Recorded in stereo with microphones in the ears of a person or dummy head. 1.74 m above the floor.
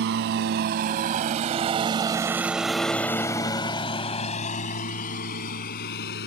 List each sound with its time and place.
0.0 s a lawn mower: 55° right (ahead or behind); by 6.3 s 60° left (ahead or behind)